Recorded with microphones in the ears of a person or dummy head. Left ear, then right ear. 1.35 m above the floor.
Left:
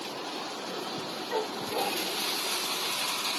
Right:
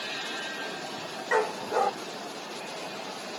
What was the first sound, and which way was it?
A dog barking, 60° right (ahead or behind).